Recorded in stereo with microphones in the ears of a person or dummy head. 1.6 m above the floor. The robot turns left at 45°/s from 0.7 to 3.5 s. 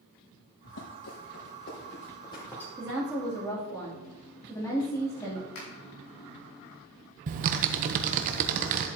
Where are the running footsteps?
60° left (ahead or behind), 3.5 m; by 2.7 s 10° left (ahead or behind), 2.5 m.